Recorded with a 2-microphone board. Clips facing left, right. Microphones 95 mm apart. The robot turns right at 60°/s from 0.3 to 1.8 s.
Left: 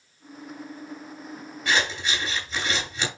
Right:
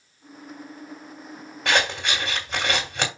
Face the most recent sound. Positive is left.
turn(degrees=-70)  # may be behind; listen again after turning